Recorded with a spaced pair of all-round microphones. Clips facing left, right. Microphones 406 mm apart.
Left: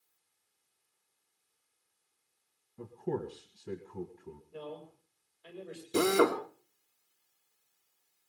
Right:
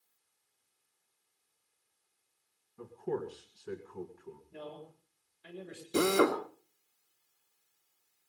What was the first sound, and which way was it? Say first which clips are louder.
A man speaking: even; 35° left (ahead or behind).